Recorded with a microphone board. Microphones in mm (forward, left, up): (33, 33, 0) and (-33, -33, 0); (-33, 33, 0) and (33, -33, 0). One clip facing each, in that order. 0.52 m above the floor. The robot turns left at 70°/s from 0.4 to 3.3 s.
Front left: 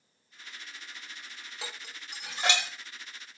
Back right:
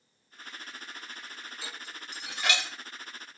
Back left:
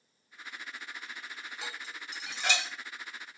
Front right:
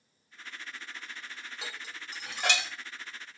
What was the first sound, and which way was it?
Dishes clattering, 45° left.